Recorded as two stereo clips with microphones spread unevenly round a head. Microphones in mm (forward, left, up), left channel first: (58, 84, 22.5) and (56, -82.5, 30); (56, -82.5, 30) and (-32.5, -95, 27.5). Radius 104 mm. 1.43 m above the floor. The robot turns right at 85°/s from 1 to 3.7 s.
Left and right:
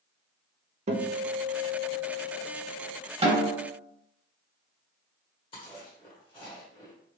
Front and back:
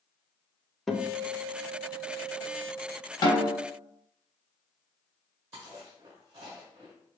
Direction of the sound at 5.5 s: 135° left.